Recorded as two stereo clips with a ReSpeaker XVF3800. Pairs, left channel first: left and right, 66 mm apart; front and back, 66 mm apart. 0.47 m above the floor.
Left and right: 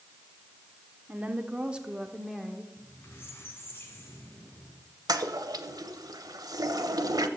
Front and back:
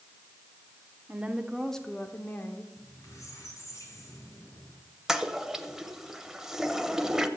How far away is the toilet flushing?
About 1.0 m.